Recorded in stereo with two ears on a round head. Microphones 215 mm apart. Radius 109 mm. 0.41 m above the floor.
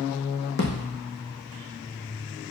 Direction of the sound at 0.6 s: 45° left (ahead or behind).